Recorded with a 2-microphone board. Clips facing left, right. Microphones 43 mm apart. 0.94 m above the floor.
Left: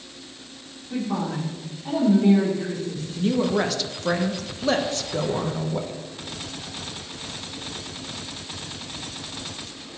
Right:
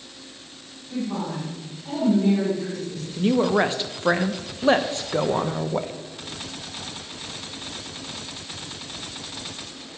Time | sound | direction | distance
0.9 | a woman speaking | 25° left (ahead or behind) | 3 m
3.2 | a woman speaking | 25° right (ahead or behind) | 0.5 m